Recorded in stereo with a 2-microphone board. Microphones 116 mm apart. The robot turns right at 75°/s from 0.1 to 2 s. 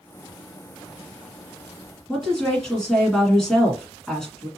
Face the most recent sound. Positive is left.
turn(degrees=5)  # may be behind; listen again after turning